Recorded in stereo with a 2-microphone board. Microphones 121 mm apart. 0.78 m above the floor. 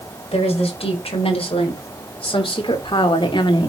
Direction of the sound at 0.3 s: 55° left (ahead or behind).